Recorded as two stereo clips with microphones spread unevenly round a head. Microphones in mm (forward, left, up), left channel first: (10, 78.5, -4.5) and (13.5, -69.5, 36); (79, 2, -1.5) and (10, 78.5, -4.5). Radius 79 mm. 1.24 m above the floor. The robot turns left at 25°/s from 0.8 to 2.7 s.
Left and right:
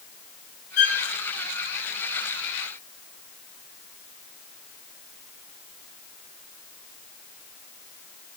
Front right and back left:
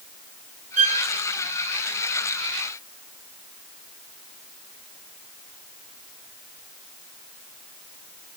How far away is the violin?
About 6.5 m.